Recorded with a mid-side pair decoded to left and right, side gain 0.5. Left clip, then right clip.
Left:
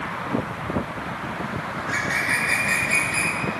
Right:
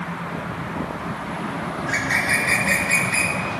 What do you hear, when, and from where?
1.8 s a bird: 30° right, 2 m